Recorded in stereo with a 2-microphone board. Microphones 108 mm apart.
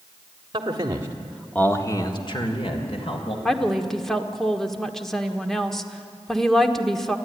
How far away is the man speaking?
About 1.8 m.